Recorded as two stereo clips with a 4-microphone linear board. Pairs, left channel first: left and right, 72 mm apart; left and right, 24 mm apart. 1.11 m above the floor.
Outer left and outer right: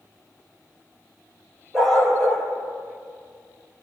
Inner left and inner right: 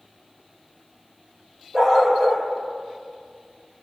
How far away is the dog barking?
About 7 m.